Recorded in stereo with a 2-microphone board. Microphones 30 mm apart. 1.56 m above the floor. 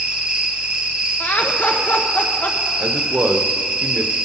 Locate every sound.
0.0 s an insect: 30° right (ahead or behind), 1.6 m
1.2 s laughter: 90° left, 1.2 m
2.8 s a man speaking: 70° right (ahead or behind), 0.9 m